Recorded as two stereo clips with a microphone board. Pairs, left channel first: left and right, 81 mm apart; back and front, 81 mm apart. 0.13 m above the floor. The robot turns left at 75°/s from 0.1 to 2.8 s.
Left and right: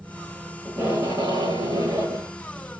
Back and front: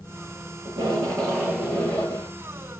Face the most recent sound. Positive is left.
turn(degrees=-170)